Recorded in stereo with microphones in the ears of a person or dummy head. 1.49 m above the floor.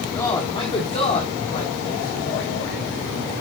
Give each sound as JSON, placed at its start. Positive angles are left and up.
{"t": 0.1, "sound": "a man speaking", "side_deg": 15, "distance_m": 1.5}